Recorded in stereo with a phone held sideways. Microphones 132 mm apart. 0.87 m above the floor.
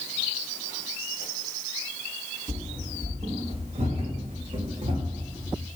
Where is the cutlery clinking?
I don't hear cutlery clinking.